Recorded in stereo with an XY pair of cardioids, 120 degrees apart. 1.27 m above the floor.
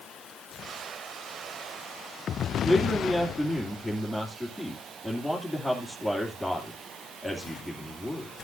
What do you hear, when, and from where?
2.6 s a man speaking: 5° right, 2.5 m